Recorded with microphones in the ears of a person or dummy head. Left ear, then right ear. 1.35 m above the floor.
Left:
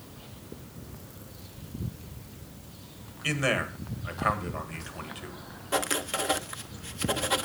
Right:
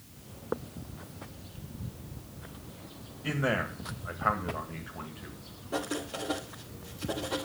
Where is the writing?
50° left (ahead or behind), 0.8 m.